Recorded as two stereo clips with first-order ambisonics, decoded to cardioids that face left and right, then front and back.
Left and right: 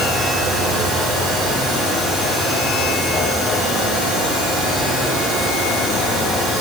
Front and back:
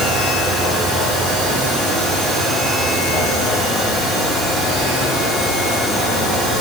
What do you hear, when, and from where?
Only background noise.